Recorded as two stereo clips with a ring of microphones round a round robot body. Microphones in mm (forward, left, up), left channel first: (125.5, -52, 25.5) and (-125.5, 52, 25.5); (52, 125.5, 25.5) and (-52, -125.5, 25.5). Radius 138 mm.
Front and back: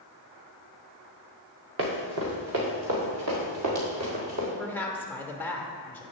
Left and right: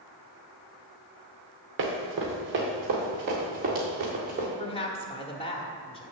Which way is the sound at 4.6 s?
50° left.